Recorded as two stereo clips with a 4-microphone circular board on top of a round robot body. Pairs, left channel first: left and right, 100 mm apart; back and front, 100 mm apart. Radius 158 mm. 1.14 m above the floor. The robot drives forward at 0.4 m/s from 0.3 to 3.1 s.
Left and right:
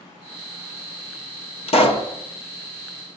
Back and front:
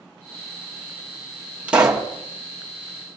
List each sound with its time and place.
1.7 s a pop: 80° left, 1.4 m; by 2.1 s 85° left, 1.4 m